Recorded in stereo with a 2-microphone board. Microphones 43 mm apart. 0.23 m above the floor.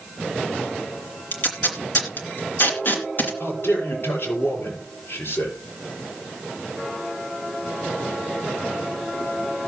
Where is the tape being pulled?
50° left (ahead or behind), 3 m.